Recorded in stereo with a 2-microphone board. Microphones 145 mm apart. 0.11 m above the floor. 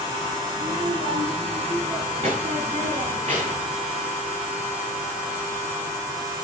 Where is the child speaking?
45° right (ahead or behind), 9 m; by 3.8 s 60° right (ahead or behind), 6.5 m.